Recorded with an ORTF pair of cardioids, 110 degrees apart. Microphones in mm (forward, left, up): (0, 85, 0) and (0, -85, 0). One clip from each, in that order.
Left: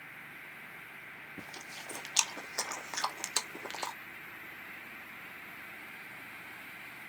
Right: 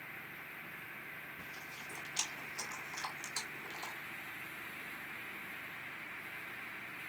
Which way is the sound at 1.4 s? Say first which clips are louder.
Left 2 dB; 65° left.